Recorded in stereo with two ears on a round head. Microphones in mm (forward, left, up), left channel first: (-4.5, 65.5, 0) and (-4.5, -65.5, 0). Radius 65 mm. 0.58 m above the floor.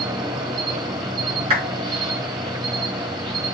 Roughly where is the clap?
Right.